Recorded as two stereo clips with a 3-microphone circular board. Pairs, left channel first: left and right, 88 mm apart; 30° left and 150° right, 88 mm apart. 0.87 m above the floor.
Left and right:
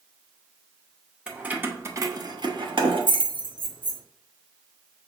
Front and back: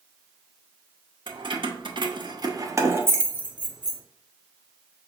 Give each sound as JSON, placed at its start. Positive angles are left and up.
{"t": 1.3, "sound": "keys jangling", "azimuth_deg": -170, "distance_m": 0.8}